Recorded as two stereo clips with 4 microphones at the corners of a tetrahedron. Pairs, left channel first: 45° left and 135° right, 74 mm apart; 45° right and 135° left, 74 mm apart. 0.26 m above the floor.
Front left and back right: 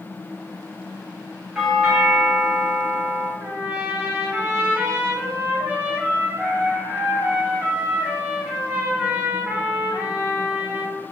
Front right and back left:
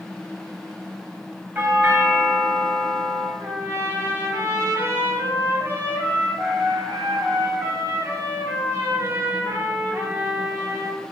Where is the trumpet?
175° left, 1.7 m.